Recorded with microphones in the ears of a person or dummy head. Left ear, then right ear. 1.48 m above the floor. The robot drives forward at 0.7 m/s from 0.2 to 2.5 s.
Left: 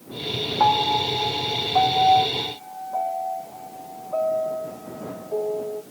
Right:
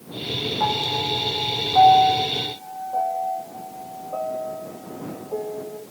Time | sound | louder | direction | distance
0.6 | a piano | left 5 dB | 30° left (ahead or behind) | 0.6 m